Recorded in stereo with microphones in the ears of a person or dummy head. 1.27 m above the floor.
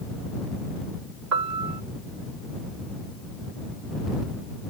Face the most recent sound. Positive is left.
turn(degrees=-85)